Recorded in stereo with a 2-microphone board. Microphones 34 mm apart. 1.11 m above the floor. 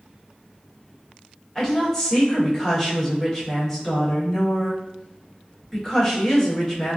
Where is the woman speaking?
15° left (ahead or behind), 1.4 m.